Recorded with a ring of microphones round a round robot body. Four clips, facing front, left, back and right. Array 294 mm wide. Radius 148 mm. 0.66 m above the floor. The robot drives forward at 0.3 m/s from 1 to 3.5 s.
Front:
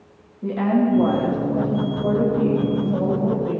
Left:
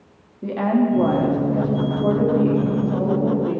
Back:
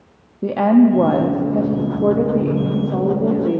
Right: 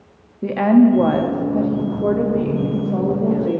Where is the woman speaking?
155° right, 0.8 m; by 3.6 s 170° right, 1.4 m.